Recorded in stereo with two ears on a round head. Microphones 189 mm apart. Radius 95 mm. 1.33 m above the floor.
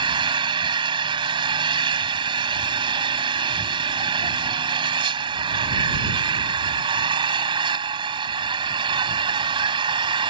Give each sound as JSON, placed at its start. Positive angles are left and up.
{"t": 0.0, "sound": "an engine running", "side_deg": -25}